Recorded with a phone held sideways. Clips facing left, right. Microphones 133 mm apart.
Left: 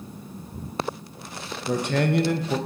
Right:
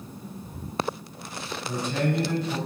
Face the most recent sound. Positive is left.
turn(degrees=70)  # may be behind; listen again after turning